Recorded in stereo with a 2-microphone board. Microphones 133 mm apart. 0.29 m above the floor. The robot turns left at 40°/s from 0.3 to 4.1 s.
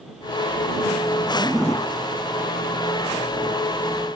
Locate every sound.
1.3 s a zipper: 15° right (ahead or behind); by 1.9 s 5° left (ahead or behind)